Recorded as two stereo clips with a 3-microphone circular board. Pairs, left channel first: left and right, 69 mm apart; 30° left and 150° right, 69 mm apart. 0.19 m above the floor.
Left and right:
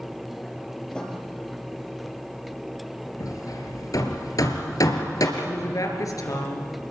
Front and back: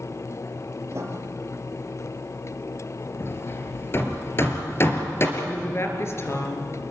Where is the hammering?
75° left, 3 m.